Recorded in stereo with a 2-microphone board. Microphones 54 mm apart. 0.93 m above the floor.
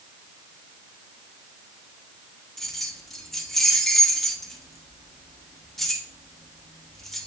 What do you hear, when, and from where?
2.6 s keys jangling: 5° left (ahead or behind), 0.9 m